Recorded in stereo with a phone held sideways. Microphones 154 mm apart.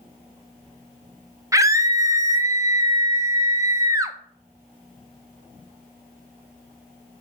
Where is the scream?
20° right (ahead or behind), 0.6 m.